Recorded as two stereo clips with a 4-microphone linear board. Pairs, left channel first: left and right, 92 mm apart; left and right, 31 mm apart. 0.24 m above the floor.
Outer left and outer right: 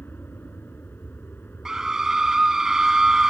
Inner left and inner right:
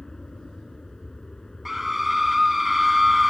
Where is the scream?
5° right (ahead or behind).